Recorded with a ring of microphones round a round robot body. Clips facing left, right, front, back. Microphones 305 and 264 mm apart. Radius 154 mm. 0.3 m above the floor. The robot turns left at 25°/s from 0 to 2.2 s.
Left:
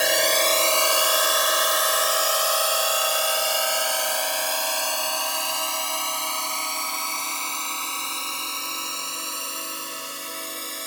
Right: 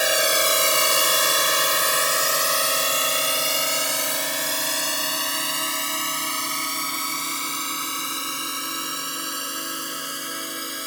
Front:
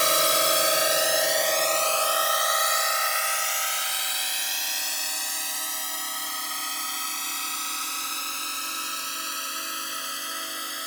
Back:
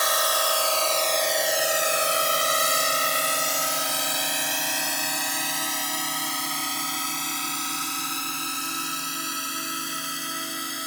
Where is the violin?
No violin in this recording.